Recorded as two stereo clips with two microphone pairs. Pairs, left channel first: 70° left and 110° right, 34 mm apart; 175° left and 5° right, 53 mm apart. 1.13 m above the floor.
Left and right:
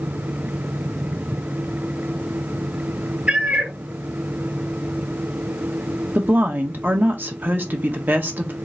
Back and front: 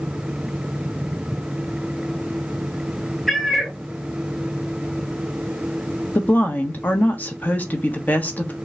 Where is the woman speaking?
130° right, 1.1 m.